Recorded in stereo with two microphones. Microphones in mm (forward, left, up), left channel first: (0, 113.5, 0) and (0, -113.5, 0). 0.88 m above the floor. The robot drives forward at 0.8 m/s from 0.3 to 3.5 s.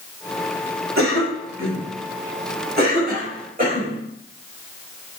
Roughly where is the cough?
Right.